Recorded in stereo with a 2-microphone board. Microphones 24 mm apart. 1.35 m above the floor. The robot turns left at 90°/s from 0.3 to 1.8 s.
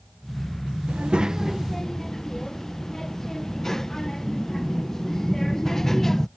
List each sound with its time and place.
0.9 s a child speaking: 110° right; by 6.3 s 165° left